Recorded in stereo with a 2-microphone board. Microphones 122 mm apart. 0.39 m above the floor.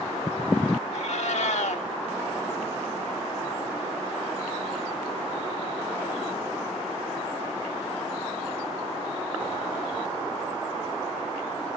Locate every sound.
0.9 s a cat meowing: 65° left (ahead or behind), 0.9 m